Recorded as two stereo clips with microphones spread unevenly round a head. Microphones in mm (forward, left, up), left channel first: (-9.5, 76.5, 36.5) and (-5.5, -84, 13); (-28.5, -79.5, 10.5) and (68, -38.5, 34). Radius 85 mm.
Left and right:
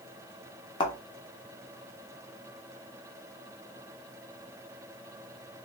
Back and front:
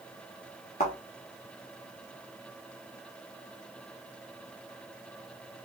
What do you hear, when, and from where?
0.8 s a thud: 150° left, 0.9 m